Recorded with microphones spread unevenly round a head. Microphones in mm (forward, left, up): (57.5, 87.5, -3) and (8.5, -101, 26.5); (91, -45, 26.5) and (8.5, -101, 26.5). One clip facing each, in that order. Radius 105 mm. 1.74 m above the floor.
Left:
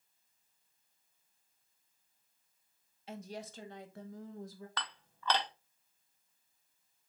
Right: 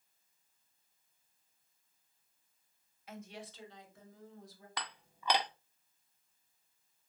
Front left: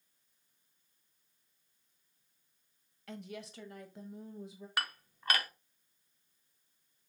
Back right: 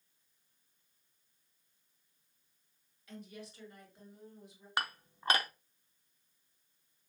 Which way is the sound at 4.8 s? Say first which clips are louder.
Even, back right 2 dB; 135° right.